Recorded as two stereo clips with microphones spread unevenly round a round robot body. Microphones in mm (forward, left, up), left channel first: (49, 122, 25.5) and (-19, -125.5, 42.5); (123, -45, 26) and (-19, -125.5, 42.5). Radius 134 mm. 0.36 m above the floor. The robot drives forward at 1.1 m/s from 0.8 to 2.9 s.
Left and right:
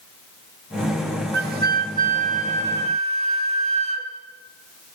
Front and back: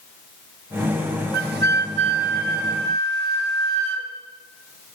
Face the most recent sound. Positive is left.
turn(degrees=-170)